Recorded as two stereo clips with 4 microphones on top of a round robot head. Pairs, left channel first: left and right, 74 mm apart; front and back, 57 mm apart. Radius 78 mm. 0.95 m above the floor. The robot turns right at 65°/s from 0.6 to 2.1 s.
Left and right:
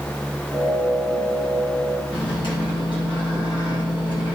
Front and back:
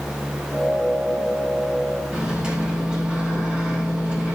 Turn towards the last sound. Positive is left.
turn(degrees=105)